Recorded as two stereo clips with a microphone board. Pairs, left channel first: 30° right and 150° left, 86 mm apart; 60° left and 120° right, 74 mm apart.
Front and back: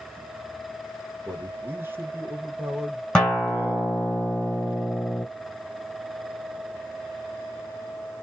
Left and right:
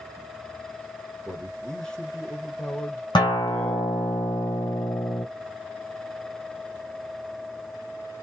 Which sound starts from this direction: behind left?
A man speaking, at 1.2 s.